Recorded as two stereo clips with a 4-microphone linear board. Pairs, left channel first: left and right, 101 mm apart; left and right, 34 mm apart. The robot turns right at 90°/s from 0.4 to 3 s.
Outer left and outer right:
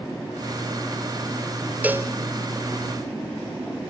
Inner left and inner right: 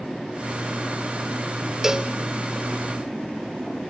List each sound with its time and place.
1.8 s a cowbell: 15° right (ahead or behind), 1.0 m; by 2.1 s 30° right (ahead or behind), 1.0 m